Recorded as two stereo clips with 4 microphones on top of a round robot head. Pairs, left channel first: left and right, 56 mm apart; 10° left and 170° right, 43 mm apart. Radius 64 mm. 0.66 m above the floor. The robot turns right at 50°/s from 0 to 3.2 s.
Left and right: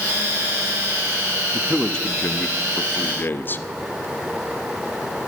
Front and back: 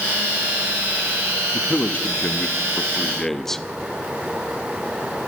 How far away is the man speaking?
About 1.0 m.